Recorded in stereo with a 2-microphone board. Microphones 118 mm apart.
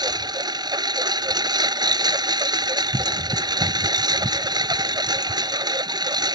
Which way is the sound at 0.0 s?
35° right (ahead or behind).